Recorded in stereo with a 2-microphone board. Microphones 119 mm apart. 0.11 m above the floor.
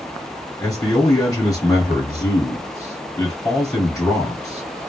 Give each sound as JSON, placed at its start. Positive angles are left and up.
{"t": 0.6, "sound": "a man speaking", "side_deg": 30, "distance_m": 2.0}